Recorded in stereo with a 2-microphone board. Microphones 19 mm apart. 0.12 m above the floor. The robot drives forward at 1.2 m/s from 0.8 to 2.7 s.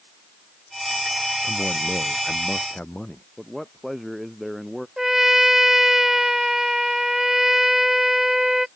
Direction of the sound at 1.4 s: 70° left (ahead or behind).